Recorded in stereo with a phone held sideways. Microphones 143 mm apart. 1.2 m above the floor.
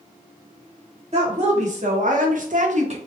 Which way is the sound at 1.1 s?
50° right (ahead or behind).